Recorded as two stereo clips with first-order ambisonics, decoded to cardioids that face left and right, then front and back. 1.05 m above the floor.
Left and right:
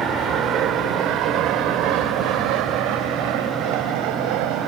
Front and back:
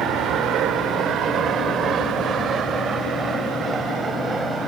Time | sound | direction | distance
0.0 | an aircraft | 140° right | ?